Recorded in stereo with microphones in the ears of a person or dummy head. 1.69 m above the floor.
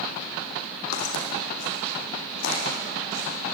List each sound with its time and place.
0.9 s footsteps: 65° left (ahead or behind), 4.5 m